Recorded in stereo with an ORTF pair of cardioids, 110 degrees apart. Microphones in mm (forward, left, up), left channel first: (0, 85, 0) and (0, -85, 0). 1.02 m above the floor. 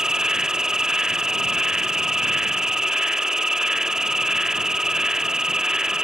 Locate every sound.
0.0 s an insect: 5° right